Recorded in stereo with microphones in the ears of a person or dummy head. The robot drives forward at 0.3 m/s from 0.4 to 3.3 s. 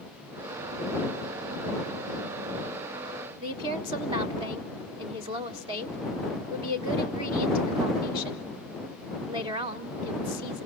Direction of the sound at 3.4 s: 25° right (ahead or behind).